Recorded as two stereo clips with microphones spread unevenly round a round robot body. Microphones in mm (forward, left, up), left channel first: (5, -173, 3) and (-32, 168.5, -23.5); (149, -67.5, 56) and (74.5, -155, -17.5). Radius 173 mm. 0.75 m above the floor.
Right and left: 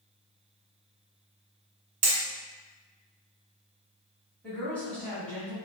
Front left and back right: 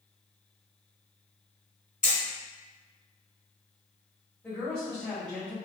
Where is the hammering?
105° left, 1.0 m.